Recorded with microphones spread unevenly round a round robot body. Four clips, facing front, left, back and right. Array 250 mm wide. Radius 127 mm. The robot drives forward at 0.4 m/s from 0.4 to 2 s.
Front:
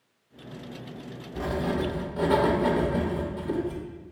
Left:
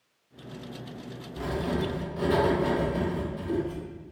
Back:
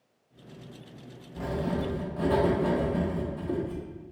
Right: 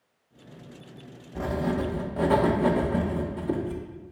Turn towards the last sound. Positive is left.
turn(degrees=-70)